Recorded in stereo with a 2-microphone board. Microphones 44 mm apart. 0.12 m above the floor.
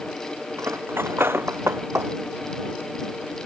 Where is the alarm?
I don't hear an alarm.